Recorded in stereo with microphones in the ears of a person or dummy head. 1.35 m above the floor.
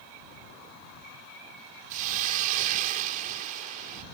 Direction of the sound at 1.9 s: 40° right (ahead or behind).